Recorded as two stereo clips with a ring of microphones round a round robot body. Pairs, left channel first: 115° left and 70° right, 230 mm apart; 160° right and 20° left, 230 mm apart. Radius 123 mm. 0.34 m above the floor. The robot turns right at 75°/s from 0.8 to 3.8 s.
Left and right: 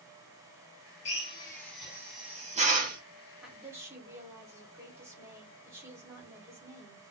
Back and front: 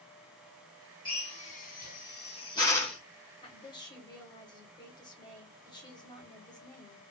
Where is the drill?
150° left, 1.7 m; by 3.0 s 65° right, 1.7 m.